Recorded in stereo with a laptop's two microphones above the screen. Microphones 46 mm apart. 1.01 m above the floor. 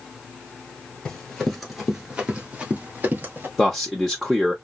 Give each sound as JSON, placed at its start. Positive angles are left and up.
{"t": 1.1, "sound": "running footsteps", "side_deg": 10, "distance_m": 1.2}
{"t": 3.6, "sound": "a man speaking", "side_deg": 5, "distance_m": 0.8}